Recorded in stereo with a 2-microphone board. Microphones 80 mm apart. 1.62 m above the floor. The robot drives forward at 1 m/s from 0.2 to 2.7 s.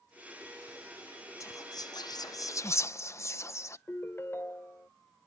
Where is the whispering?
40° left (ahead or behind); by 3.8 s 35° left (ahead or behind).